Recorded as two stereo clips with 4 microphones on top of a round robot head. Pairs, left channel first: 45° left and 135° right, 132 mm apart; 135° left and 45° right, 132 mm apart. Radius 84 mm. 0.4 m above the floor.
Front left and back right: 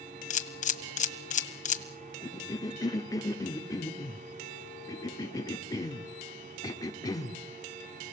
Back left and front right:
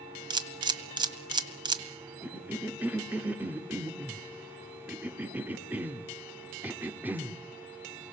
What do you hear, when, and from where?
0.3 s a camera shutter: 15° left, 1.6 m
2.2 s a cough: 20° left, 1.0 m